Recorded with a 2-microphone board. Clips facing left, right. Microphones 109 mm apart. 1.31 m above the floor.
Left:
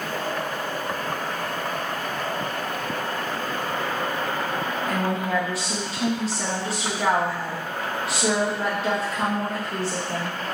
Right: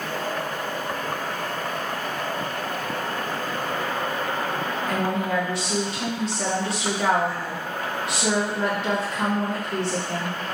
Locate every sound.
4.9 s a woman speaking: 5° left (ahead or behind), 2.5 m